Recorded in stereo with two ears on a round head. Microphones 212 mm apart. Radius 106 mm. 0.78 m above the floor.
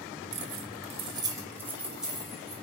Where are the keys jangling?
55° right (ahead or behind), 1.0 m; by 2.5 s centre (ahead or behind), 3 m.